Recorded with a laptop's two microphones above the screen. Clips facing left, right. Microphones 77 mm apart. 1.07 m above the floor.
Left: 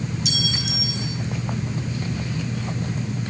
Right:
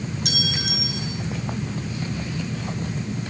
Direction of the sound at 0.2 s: 50° right (ahead or behind).